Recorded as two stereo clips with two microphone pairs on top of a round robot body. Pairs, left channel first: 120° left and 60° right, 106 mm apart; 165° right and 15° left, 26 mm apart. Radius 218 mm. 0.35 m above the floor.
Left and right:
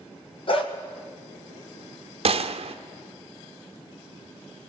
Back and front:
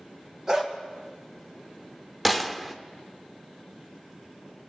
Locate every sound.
0.5 s a dog barking: 85° left, 1.7 m
2.2 s a gunshot: 75° right, 0.8 m